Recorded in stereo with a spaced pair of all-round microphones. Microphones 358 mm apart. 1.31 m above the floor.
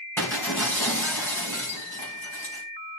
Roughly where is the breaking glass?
Centre.